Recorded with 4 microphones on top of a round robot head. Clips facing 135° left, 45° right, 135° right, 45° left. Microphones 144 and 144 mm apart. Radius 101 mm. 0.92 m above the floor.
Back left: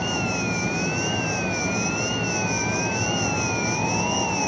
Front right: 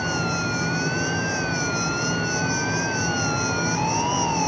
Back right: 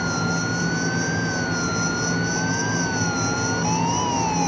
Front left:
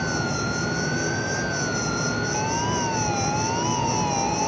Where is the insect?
70° left, 7 m.